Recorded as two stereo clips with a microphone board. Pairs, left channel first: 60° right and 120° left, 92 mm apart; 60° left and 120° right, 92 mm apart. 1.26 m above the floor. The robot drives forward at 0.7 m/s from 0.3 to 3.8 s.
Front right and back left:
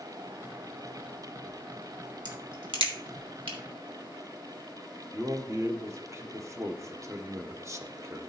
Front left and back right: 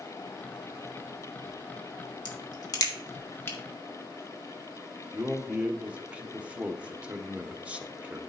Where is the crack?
90° left, 1.5 m; by 3.6 s 125° left, 1.8 m.